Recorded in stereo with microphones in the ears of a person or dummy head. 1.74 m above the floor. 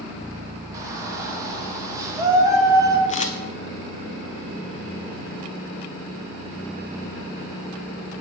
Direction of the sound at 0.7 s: 20° right (ahead or behind).